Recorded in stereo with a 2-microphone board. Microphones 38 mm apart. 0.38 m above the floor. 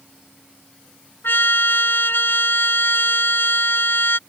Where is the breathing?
I don't hear breathing.